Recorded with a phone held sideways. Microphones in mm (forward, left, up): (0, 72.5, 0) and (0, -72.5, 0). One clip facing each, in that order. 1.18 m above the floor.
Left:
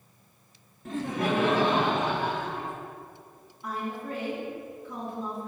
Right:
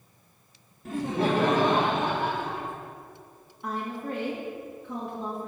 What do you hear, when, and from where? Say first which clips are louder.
0.8 s laughter: right 2 dB; centre (ahead or behind), 0.6 m; by 2.7 s 60° right (ahead or behind), 2 m
3.6 s a woman speaking: right 1 dB; 65° right (ahead or behind), 1.6 m